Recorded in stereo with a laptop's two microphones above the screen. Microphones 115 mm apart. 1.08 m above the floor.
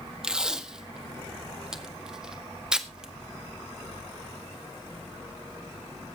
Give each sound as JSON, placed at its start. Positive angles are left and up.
{"t": 0.2, "sound": "tape being pulled", "side_deg": -5, "distance_m": 1.6}